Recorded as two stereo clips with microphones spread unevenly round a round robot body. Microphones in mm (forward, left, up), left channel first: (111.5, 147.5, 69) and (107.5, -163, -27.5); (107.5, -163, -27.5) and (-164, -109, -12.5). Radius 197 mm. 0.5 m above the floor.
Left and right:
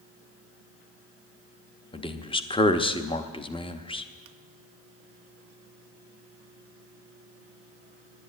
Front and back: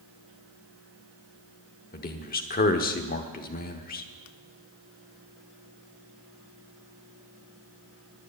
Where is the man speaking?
Straight ahead, 0.8 m.